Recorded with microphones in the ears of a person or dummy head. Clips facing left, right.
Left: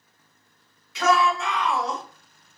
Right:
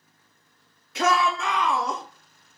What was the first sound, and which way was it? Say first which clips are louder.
A shout: left 2 dB; 45° right (ahead or behind).